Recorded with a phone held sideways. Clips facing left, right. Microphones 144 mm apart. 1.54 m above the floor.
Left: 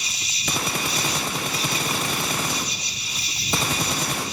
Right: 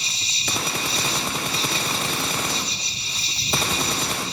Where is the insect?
30° right (ahead or behind).